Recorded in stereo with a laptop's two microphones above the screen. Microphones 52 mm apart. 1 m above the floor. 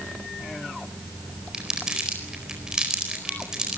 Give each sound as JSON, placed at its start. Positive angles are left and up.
{"t": 1.5, "sound": "crumpling", "side_deg": -15, "distance_m": 4.5}